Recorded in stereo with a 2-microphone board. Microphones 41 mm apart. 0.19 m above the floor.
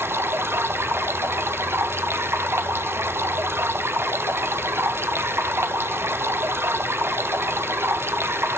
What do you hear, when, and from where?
0.0 s running water: 70° right (ahead or behind), 0.7 m